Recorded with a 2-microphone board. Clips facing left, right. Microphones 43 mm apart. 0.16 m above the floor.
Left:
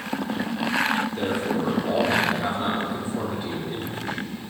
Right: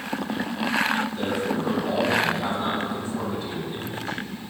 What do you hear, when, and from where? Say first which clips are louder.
1.2 s a man speaking: left 1 dB; 25° left (ahead or behind), 3 m